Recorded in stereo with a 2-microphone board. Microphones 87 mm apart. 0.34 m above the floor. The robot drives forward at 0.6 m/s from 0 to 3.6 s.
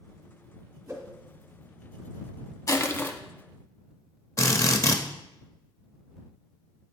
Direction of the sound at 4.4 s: 40° left (ahead or behind).